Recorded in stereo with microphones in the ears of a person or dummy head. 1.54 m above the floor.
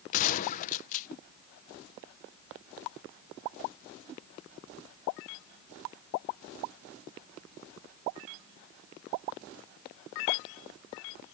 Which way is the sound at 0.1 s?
50° left (ahead or behind).